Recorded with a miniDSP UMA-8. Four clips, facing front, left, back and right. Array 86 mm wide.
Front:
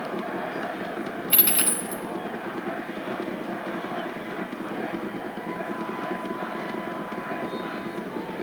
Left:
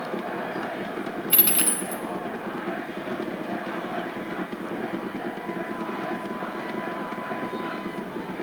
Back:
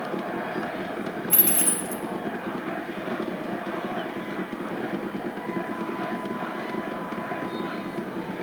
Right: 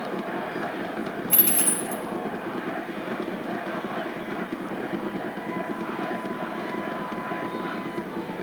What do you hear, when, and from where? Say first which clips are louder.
1.3 s a dropped coin: even, back 1 dB; 30° left, 0.6 m